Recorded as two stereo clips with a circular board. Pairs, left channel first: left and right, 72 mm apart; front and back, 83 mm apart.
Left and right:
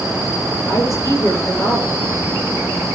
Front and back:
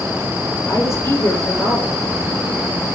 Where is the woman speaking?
50° left, 7 m.